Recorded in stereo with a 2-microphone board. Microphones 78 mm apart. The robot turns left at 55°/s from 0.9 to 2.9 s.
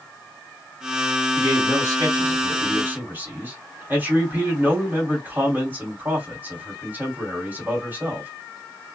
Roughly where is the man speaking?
Ahead right.